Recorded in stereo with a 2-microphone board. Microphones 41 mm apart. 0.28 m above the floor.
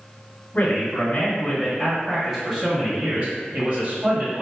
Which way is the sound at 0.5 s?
40° left (ahead or behind).